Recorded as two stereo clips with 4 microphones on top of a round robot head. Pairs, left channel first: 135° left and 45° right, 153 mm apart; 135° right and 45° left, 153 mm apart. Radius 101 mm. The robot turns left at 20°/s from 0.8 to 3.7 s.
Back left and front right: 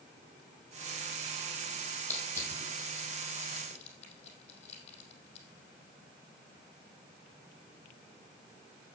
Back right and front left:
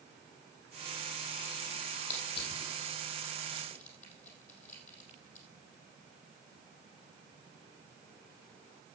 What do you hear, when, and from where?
2.1 s crushing: 145° right, 4 m; by 5.5 s straight behind, 4 m